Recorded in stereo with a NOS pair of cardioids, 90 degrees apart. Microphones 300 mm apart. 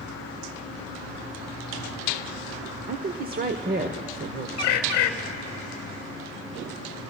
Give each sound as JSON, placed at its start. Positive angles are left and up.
{"t": 2.9, "sound": "a woman speaking", "azimuth_deg": -30, "distance_m": 0.9}
{"t": 4.6, "sound": "a bird", "azimuth_deg": 50, "distance_m": 1.1}